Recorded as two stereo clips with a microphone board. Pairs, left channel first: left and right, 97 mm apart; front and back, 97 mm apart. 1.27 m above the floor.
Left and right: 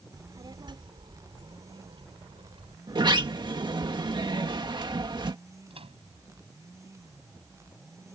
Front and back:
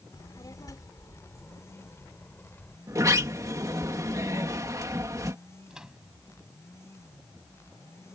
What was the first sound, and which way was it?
A child speaking, 45° right.